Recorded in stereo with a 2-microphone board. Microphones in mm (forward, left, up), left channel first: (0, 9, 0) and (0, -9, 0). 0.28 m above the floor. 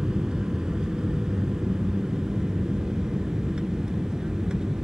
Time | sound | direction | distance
0.0 | an aircraft | 50° right (ahead or behind) | ?